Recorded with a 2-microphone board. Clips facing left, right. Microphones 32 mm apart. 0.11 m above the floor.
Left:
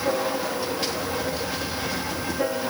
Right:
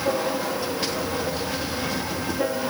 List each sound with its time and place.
Only background noise.